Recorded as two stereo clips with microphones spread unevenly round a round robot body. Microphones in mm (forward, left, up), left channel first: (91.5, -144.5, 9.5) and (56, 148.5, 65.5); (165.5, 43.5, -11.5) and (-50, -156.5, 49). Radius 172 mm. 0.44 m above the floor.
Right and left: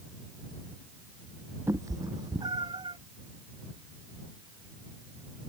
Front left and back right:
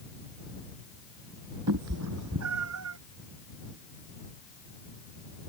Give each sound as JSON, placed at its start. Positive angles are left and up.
{"t": 1.7, "sound": "a cat meowing", "azimuth_deg": 175}